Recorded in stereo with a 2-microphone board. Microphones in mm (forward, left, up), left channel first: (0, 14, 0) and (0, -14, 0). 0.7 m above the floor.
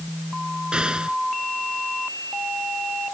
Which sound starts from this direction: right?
An explosion, at 0.7 s.